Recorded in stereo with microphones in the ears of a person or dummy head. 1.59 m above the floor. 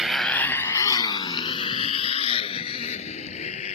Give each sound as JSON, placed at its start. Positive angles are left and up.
{"t": 0.0, "sound": "a motorcycle", "side_deg": -5}